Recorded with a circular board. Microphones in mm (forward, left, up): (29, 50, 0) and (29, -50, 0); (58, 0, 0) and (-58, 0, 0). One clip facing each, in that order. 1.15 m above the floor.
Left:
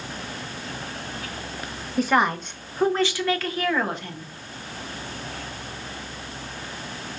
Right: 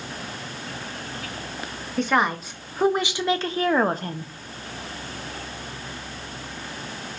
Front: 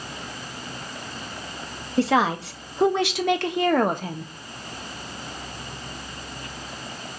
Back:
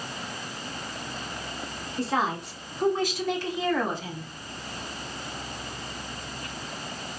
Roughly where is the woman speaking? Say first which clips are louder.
Left 1 dB, front 7 dB; ahead.